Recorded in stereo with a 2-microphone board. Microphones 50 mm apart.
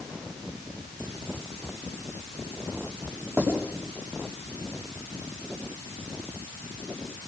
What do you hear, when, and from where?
3.4 s writing: 50° right (ahead or behind), 7 m